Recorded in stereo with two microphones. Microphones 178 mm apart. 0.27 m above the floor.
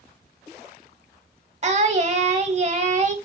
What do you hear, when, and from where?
1.6 s singing: 40° right (ahead or behind), 0.7 m